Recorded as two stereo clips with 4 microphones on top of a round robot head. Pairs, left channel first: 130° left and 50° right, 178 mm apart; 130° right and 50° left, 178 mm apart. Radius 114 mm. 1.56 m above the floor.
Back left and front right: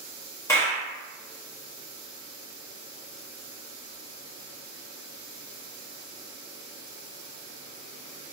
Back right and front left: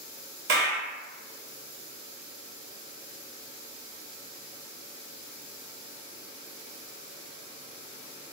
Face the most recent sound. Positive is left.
turn(degrees=55)